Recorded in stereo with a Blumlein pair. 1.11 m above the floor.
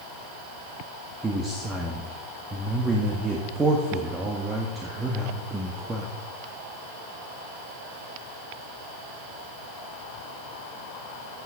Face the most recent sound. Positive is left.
turn(degrees=-10)